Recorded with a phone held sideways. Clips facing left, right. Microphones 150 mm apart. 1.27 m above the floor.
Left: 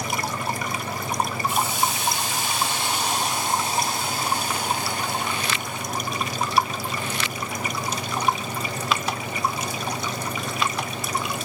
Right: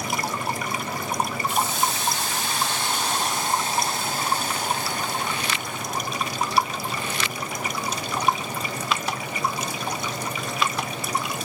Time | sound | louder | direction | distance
1.5 | a hiss | even | 15° left (ahead or behind) | 2 m